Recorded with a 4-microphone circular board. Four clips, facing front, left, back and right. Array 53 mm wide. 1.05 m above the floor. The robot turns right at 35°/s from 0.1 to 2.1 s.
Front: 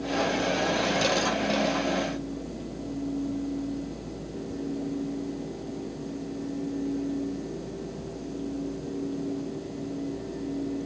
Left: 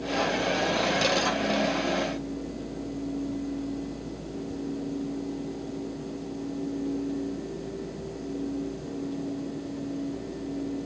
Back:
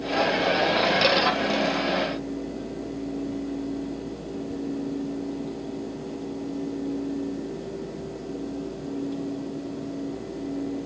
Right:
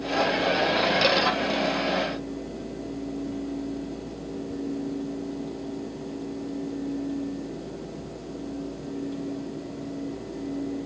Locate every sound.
Only background noise.